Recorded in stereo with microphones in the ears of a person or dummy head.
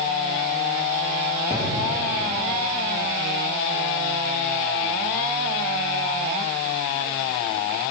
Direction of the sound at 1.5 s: 25° right (ahead or behind).